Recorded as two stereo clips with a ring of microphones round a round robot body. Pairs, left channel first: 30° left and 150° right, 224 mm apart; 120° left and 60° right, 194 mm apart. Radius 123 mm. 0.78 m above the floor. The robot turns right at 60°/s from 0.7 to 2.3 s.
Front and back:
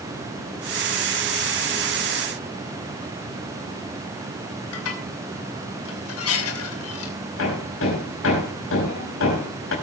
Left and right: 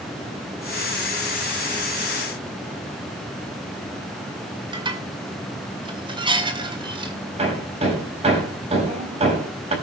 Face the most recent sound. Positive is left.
turn(degrees=0)